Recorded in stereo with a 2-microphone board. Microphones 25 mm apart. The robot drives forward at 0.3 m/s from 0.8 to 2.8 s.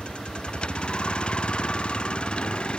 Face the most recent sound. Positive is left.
turn(degrees=50)  # may be behind; listen again after turning